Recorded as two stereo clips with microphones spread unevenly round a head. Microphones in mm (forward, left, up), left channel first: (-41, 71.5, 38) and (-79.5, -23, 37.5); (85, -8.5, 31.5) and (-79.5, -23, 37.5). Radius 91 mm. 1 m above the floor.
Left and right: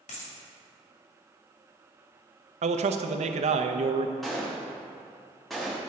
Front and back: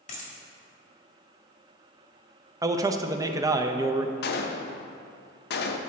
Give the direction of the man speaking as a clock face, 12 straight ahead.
3 o'clock.